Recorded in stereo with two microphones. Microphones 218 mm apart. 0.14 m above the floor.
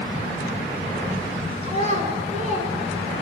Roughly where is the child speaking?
Right.